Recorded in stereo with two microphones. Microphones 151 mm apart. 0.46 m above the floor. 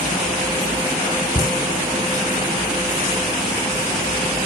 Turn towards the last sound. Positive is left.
turn(degrees=65)  # may be behind; listen again after turning